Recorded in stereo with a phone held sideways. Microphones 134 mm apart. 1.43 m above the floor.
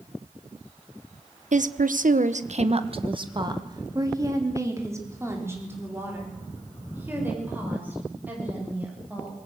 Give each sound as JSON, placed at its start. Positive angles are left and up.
{"t": 1.5, "sound": "a woman speaking", "side_deg": -65, "distance_m": 1.1}